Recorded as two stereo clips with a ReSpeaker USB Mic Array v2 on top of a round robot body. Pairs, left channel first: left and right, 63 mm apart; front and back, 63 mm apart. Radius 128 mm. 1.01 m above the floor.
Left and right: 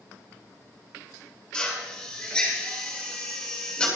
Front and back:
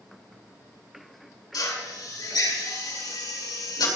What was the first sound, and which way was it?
A drill, 10° left.